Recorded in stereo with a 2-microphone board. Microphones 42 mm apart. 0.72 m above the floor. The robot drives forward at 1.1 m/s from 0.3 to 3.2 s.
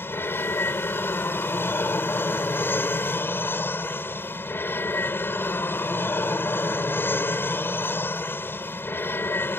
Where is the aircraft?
65° left (ahead or behind); by 9.6 s 60° left (ahead or behind).